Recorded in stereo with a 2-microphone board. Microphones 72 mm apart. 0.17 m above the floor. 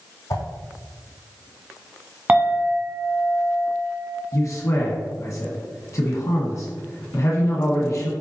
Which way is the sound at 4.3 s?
45° left (ahead or behind).